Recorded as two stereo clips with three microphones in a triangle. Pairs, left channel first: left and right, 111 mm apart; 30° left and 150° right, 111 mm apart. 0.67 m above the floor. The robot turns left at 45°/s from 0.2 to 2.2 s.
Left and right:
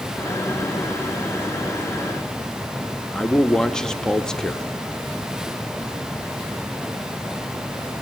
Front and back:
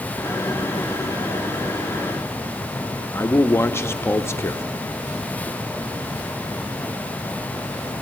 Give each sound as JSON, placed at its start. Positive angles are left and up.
{"t": 3.1, "sound": "a man speaking", "azimuth_deg": 20, "distance_m": 0.7}